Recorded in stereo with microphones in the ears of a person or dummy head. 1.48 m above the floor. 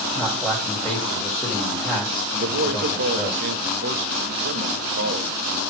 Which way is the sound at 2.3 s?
60° right (ahead or behind).